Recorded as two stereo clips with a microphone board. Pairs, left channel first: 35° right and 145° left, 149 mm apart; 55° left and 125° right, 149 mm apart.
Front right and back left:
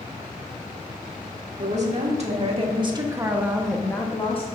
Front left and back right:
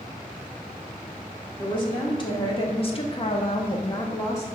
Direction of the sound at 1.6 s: 110° left.